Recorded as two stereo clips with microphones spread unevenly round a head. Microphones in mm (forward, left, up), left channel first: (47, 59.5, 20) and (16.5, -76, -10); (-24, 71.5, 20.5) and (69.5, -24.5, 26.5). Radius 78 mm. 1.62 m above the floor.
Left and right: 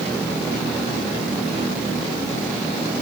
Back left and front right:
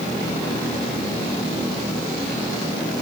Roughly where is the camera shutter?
I don't hear a camera shutter.